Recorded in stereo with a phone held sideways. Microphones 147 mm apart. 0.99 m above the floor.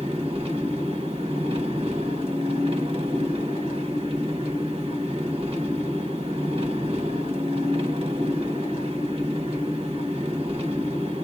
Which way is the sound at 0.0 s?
45° right (ahead or behind).